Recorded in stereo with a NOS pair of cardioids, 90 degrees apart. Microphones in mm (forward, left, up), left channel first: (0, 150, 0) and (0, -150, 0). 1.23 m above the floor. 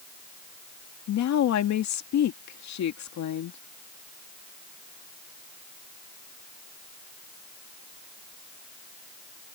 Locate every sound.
1.1 s a woman speaking: 65° left